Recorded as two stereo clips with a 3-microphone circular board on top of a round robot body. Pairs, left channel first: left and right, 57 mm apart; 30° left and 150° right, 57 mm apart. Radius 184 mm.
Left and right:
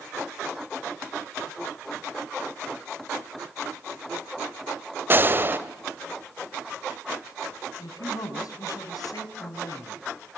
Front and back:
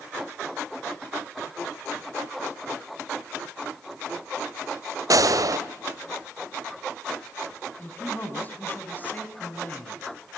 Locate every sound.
5.1 s a gunshot: 145° right, 2 m
7.8 s a man speaking: 90° left, 5 m